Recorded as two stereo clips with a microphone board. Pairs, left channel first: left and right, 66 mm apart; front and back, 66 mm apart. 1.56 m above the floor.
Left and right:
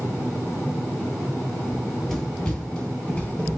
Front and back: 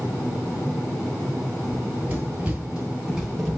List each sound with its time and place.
1.7 s running footsteps: straight behind, 1.7 m; by 3.6 s 90° left, 1.6 m